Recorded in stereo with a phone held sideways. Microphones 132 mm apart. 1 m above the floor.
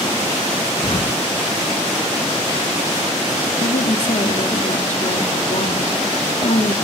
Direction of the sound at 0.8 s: 40° left (ahead or behind).